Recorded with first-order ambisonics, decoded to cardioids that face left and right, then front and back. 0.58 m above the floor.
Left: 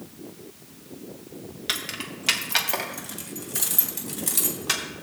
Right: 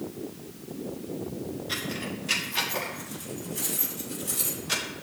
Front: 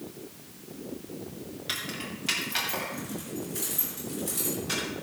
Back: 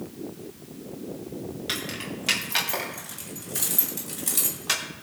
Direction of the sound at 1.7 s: 100° left.